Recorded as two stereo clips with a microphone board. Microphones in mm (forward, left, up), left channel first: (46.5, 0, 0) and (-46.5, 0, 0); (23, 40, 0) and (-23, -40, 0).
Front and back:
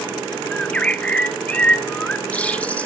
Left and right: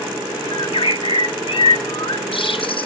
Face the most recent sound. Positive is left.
turn(degrees=75)